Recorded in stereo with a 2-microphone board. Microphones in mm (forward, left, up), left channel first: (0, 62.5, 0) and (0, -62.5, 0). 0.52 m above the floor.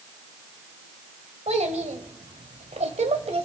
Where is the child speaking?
65° right (ahead or behind), 1.7 m; by 3.5 s 60° right (ahead or behind), 1.7 m.